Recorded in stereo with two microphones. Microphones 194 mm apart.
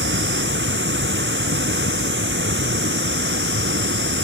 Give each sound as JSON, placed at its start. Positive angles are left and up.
{"t": 0.0, "sound": "running water", "side_deg": -75}